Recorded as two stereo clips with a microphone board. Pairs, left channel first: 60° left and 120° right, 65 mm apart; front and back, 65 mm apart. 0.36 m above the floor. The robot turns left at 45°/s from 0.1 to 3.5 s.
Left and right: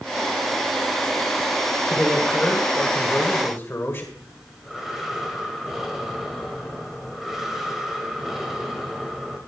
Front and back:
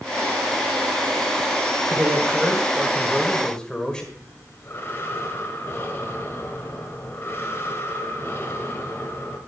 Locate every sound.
1.9 s a man speaking: 145° left, 1.7 m; by 4.1 s 70° left, 1.7 m
4.2 s breathing: 35° right, 1.6 m